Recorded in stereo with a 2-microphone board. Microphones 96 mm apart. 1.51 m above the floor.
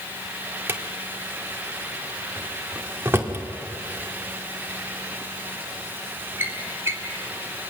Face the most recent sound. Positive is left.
turn(degrees=-25)  # may be behind; listen again after turning